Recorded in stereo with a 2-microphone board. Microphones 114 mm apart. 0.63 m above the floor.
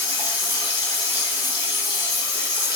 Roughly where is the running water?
Left.